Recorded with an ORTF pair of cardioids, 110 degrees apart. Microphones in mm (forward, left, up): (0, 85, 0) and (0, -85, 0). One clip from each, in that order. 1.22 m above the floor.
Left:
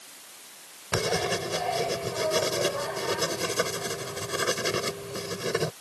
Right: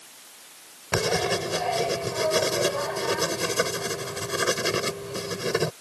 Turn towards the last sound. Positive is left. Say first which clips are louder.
# right 3 dB
turn(degrees=-20)